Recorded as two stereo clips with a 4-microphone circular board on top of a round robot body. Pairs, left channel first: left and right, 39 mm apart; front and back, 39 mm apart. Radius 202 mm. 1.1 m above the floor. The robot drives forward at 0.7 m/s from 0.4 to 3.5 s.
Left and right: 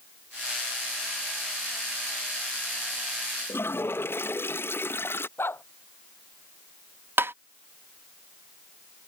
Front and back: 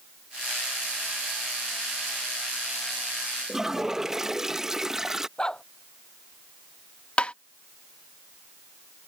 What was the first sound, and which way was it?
A toilet flushing, 100° left.